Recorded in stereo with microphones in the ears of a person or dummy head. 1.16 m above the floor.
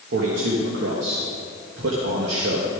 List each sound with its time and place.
0.1 s a man speaking: 70° right (ahead or behind), 1.5 m